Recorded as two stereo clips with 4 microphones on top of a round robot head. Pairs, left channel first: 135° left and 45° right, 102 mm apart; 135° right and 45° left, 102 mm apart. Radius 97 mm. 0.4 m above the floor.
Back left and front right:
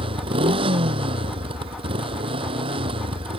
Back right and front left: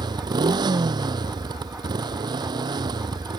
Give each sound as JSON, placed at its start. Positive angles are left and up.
{"t": 0.0, "sound": "a motorcycle", "azimuth_deg": -5}